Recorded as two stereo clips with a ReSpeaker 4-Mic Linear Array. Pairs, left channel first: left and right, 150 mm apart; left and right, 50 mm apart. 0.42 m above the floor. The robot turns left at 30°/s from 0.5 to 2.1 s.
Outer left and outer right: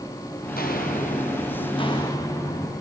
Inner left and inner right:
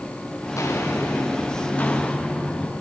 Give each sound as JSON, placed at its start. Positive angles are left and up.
{"t": 0.4, "sound": "footsteps", "side_deg": 85, "distance_m": 3.0}